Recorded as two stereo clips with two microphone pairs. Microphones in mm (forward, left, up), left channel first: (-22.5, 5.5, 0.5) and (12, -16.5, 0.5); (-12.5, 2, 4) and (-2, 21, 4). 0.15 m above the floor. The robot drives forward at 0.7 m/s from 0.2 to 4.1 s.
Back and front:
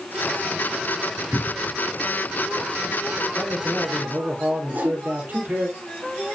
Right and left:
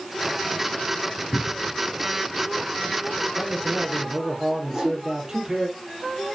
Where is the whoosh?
15° right, 5 m.